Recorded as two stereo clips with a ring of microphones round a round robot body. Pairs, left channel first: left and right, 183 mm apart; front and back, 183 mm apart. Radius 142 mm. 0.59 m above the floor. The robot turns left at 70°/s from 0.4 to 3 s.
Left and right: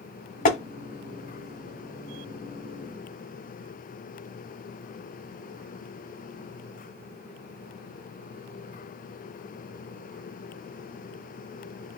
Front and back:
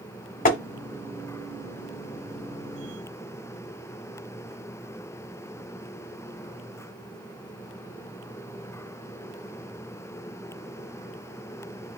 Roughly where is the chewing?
I don't hear chewing.